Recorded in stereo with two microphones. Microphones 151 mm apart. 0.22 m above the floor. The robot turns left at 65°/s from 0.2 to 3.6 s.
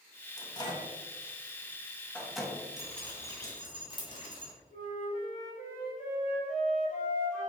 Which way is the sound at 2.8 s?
Centre (ahead or behind).